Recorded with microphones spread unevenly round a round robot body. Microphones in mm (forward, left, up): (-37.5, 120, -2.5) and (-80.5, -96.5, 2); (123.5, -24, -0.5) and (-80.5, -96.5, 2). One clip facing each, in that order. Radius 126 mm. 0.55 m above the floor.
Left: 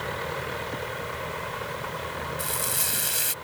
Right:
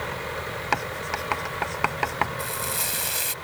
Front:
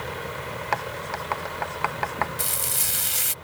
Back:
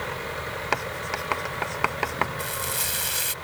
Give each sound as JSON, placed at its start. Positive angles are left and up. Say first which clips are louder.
{"t": 0.7, "sound": "writing", "louder": "right 2 dB, back 1 dB", "azimuth_deg": -110}
{"t": 2.4, "sound": "frying", "louder": "right 1 dB, back 2 dB", "azimuth_deg": 0}